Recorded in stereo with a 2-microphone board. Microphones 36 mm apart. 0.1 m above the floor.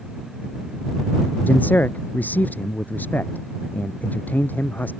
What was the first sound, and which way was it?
A man speaking, 55° left (ahead or behind).